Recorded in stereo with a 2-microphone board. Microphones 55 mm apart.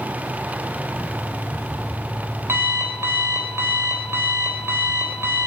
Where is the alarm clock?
50° right (ahead or behind), 3.5 m.